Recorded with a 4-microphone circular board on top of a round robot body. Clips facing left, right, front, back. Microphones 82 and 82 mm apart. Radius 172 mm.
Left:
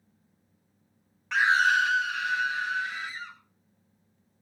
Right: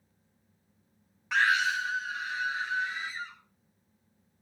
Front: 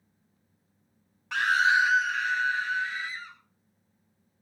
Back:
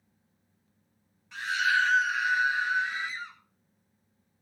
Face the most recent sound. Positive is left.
turn(degrees=110)